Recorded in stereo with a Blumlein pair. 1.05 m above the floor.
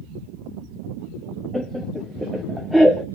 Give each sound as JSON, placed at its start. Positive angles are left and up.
{"t": 1.5, "sound": "laughter", "azimuth_deg": 0, "distance_m": 0.6}